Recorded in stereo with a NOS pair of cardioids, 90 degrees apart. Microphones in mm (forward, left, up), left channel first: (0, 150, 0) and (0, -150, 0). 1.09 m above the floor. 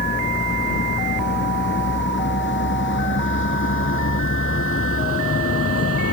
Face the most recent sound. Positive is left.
turn(degrees=50)